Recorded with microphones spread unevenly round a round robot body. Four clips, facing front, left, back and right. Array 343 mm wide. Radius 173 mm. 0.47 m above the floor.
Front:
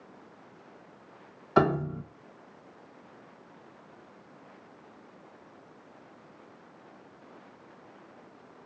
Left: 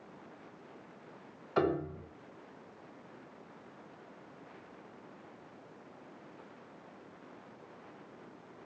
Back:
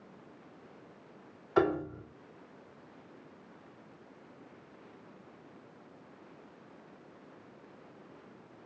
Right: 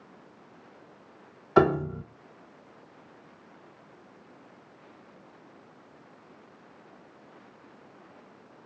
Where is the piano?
50° right, 1.4 m.